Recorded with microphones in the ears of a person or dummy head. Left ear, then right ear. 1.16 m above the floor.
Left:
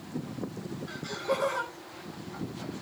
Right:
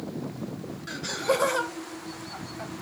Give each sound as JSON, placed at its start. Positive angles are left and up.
{"t": 0.9, "sound": "laughter", "side_deg": -40, "distance_m": 0.8}